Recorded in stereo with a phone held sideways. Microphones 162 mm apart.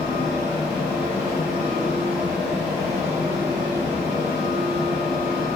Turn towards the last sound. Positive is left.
turn(degrees=-5)  # may be behind; listen again after turning